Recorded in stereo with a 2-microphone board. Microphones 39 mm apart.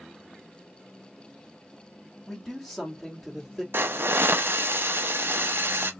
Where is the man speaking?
10° left (ahead or behind), 1.6 m; by 3.6 s 15° right (ahead or behind), 1.7 m.